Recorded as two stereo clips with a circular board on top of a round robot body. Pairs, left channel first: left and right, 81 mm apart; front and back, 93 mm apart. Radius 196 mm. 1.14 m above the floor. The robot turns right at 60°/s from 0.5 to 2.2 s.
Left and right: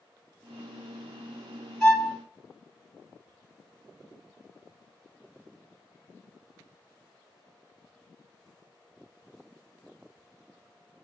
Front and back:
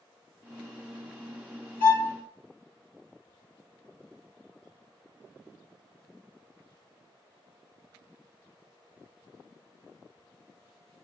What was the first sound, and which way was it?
A violin, 5° left.